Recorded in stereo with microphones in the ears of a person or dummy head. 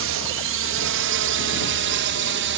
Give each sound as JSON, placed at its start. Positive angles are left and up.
{"t": 0.0, "sound": "a drone", "side_deg": -65}